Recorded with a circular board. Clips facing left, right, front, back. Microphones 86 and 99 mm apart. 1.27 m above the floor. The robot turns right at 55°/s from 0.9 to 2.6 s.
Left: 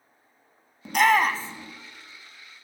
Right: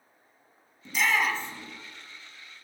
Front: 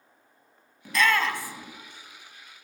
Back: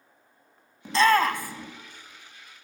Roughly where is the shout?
Behind left.